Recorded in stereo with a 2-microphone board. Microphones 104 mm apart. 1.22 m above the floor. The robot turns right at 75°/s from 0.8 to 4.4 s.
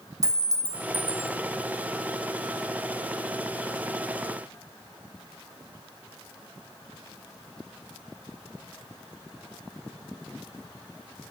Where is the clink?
145° right, 1.3 m; by 1.3 s 110° right, 1.3 m.